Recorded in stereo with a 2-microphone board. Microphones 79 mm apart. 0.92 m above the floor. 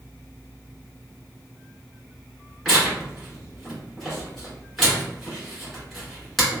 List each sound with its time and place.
2.6 s tearing paper: 5° left (ahead or behind), 1.6 m